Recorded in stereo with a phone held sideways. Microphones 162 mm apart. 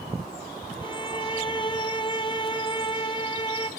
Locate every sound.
0.8 s a violin: 30° left (ahead or behind), 1.0 m